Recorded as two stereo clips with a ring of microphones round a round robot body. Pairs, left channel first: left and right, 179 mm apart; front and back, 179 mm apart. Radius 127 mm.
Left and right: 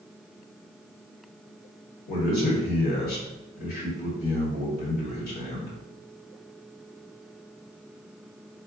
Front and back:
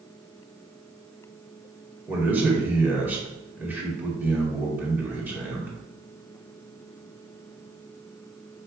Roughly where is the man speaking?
Left.